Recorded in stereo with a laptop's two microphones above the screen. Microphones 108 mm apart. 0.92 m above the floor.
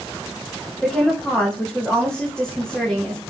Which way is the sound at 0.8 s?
5° left (ahead or behind).